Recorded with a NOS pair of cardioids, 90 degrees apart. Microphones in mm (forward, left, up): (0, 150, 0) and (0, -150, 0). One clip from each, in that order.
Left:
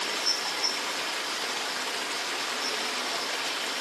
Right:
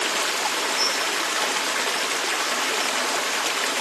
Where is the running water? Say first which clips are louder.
Right 5 dB; 50° right, 0.9 m.